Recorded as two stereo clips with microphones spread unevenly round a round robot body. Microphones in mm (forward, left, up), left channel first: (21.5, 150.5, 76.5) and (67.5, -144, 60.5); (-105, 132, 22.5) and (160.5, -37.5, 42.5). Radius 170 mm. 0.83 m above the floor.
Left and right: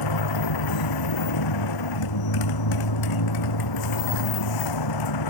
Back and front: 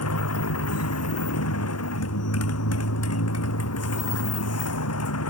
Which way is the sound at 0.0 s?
105° left.